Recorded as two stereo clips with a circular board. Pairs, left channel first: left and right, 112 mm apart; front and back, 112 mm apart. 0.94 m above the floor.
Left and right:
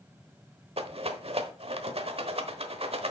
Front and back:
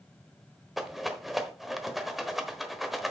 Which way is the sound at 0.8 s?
90° right.